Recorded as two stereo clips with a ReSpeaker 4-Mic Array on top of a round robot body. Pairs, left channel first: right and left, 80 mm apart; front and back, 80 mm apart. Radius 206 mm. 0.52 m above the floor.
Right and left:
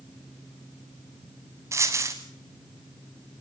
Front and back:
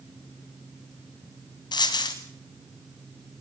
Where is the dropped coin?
35° left, 0.6 m.